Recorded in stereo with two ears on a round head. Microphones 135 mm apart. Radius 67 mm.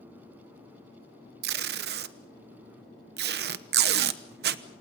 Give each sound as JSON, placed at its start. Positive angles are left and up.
{"t": 1.4, "sound": "tape being pulled", "side_deg": -80, "distance_m": 1.0}